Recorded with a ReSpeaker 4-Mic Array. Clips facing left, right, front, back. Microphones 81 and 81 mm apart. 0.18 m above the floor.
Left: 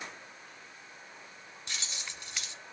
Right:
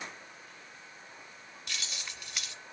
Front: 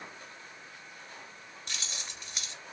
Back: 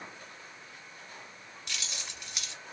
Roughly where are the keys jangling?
Ahead left.